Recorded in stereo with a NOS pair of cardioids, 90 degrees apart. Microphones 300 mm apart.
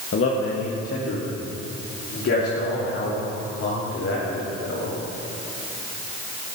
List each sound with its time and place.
0.1 s a man speaking: 45° left, 1.7 m; by 4.9 s 55° left, 5 m